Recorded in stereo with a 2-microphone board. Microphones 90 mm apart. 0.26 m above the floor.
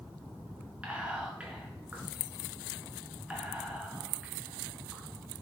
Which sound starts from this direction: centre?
Whispering, at 0.8 s.